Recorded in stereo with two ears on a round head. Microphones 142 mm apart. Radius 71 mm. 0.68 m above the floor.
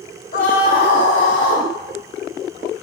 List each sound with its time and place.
0.3 s a scream: 55° left (ahead or behind), 1.1 m